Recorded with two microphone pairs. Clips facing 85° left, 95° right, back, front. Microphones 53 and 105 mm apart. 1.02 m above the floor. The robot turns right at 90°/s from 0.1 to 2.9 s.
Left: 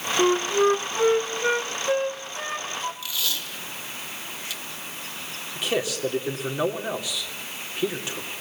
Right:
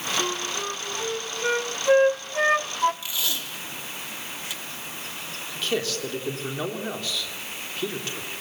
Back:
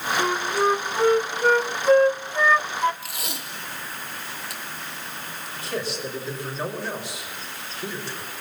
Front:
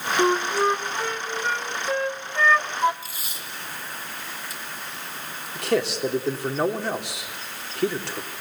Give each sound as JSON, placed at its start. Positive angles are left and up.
{"t": 0.2, "sound": "a flute", "azimuth_deg": 50, "distance_m": 0.6}
{"t": 3.0, "sound": "tape being pulled", "azimuth_deg": -160, "distance_m": 2.0}
{"t": 5.5, "sound": "a man speaking", "azimuth_deg": 10, "distance_m": 3.0}